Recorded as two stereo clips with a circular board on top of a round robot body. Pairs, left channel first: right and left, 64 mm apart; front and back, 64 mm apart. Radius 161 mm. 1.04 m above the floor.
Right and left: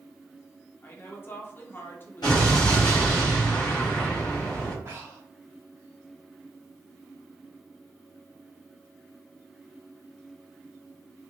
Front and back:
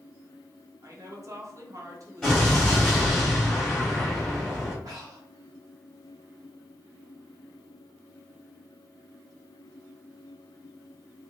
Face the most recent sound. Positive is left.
turn(degrees=145)